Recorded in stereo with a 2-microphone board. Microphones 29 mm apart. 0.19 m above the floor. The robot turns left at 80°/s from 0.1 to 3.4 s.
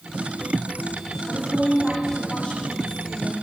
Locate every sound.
1.3 s a woman speaking: 120° right, 9 m; by 3.3 s 75° left, 9 m